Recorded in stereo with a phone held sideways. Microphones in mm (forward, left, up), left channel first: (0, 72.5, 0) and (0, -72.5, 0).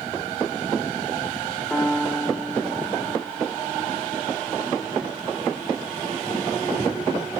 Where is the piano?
10° left (ahead or behind), 1.9 m.